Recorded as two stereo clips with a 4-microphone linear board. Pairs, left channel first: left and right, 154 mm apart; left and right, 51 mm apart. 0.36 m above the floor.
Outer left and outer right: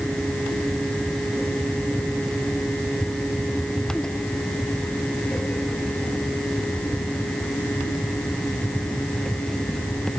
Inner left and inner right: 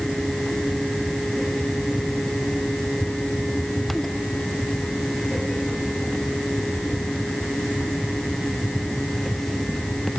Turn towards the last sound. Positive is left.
No sound to turn to.